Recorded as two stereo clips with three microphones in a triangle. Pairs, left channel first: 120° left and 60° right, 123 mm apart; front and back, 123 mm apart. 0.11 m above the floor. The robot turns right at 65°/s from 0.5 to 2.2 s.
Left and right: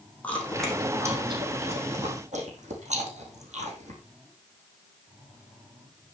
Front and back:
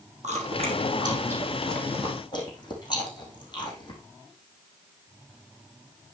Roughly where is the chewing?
Behind.